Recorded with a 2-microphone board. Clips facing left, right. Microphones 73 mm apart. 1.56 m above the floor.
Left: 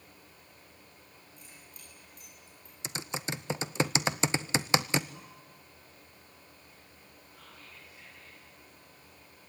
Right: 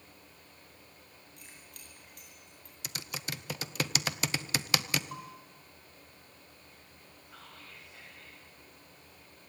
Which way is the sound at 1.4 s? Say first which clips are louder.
Right 1 dB; 70° right (ahead or behind).